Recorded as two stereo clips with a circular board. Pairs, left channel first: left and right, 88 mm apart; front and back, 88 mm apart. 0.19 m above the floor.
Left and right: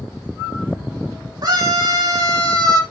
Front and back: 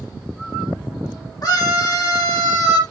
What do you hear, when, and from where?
1.4 s a scream: 45° right, 7 m